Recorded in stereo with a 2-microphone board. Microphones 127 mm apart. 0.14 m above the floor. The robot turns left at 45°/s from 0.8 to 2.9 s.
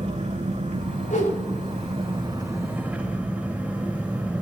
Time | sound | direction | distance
0.0 | an engine running | 75° right | 4.5 m
1.1 | a whoosh | 90° left | 8.5 m